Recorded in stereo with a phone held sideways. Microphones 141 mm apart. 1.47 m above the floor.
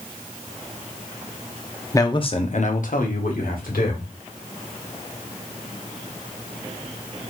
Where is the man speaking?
20° left (ahead or behind), 0.7 m; by 4.1 s 80° left, 1.7 m.